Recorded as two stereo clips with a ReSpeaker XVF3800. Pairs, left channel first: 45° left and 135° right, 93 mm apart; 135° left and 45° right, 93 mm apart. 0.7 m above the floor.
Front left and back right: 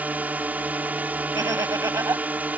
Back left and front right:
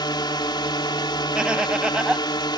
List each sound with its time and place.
0.0 s a drone: 155° left
1.4 s laughter: 120° right